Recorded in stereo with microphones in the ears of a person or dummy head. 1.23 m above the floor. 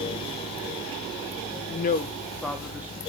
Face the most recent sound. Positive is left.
turn(degrees=-15)  # may be behind; listen again after turning